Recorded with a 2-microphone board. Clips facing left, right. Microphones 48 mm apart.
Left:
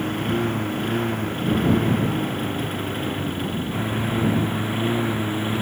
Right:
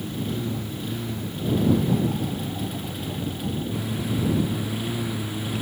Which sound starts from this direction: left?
A lawn mower, at 0.0 s.